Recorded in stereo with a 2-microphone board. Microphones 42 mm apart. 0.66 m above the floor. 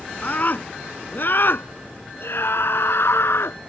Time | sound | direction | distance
0.2 | a scream | 45° left (ahead or behind) | ?